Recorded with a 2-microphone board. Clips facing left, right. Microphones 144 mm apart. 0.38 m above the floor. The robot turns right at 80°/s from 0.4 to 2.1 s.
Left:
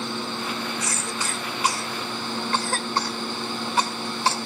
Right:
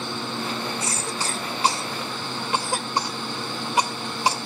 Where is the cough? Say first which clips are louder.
Right 1 dB; 25° right (ahead or behind), 1.5 m; by 4.4 s 15° right (ahead or behind), 1.5 m.